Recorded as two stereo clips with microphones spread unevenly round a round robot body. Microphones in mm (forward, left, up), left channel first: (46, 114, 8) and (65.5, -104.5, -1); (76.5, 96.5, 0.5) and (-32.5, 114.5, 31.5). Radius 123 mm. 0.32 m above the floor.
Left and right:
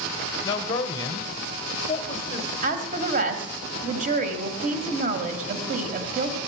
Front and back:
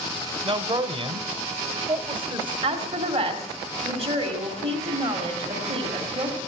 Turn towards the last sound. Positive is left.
turn(degrees=-130)